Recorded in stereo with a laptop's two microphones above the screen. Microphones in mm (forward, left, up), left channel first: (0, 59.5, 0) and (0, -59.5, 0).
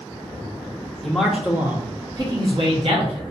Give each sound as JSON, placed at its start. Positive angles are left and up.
{"t": 1.0, "sound": "a man speaking", "side_deg": 0, "distance_m": 1.1}